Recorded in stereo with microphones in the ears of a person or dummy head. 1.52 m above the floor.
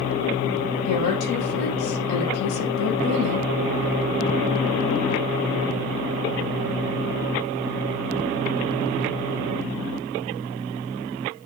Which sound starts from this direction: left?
A woman speaking, at 0.8 s.